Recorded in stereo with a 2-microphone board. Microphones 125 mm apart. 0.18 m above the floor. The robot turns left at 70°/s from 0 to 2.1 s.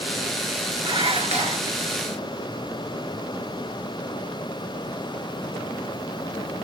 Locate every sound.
0.8 s dishes clattering: 45° right, 1.8 m; by 1.7 s 105° right, 1.8 m